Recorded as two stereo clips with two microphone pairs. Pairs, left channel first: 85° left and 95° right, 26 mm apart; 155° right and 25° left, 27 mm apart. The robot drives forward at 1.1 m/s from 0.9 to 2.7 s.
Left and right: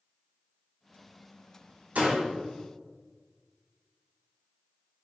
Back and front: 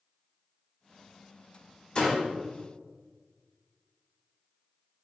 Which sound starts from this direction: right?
A door slam, at 1.9 s.